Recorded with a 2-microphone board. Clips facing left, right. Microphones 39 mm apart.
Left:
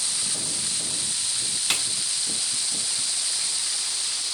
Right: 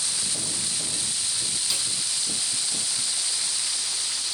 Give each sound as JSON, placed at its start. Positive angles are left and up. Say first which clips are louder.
{"t": 1.7, "sound": "a snare drum", "louder": "left 6 dB", "side_deg": 55, "distance_m": 0.6}